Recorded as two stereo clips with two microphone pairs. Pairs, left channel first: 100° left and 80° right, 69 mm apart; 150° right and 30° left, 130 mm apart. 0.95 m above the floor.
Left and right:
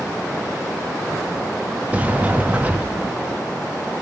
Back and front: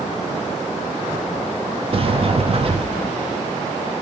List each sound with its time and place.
1.9 s a sliding door: 15° right, 0.9 m